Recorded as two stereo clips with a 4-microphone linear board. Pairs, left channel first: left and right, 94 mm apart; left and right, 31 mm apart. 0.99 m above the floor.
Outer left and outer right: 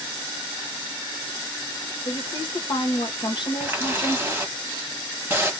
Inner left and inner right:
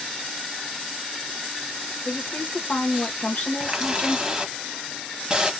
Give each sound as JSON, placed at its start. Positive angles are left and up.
{"t": 2.0, "sound": "a woman speaking", "side_deg": 55, "distance_m": 1.1}
{"t": 3.6, "sound": "a running tap", "side_deg": -20, "distance_m": 1.2}